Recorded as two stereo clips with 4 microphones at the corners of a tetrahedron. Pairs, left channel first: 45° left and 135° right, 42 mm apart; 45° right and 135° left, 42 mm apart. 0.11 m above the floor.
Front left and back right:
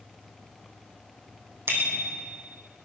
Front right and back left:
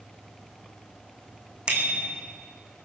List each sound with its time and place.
1.7 s a bicycle bell: 160° right, 3.5 m